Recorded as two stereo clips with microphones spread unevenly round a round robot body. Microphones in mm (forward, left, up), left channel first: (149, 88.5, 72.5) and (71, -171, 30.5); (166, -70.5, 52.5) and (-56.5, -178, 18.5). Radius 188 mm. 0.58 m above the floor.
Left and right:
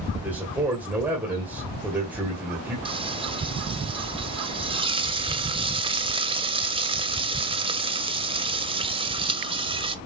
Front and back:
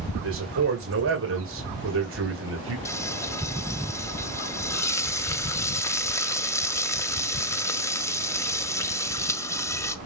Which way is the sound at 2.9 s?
55° right.